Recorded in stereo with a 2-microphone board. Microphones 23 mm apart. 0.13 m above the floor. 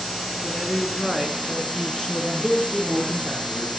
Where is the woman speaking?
20° right (ahead or behind), 2 m; by 3.3 s 20° left (ahead or behind), 3 m.